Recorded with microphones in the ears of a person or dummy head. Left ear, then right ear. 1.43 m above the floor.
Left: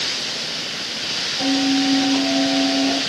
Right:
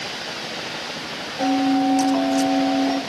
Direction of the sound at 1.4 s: 35° right (ahead or behind).